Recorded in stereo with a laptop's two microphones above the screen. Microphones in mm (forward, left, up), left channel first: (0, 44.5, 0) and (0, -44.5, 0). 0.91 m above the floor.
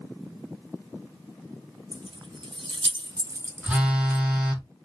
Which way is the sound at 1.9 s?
60° right (ahead or behind).